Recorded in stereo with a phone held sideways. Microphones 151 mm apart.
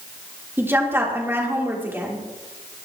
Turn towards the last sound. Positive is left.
turn(degrees=-15)  # may be behind; listen again after turning